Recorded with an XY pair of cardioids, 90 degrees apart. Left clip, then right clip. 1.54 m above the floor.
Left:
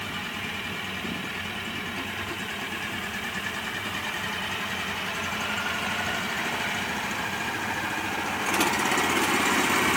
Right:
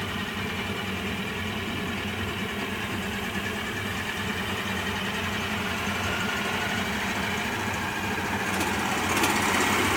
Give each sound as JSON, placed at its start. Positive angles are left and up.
{"t": 0.0, "sound": "a fan", "azimuth_deg": -55}